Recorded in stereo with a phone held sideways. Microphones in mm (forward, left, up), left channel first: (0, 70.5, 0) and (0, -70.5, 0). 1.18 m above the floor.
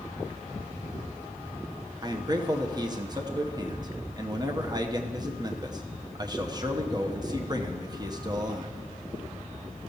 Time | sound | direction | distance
2.0 | a man speaking | 30° right (ahead or behind) | 0.9 m